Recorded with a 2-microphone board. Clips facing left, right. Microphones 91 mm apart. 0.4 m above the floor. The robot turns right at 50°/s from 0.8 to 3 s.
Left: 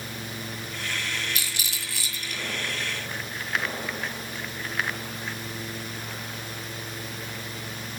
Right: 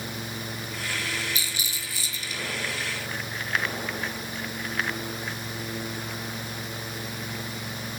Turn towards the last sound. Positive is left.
turn(degrees=155)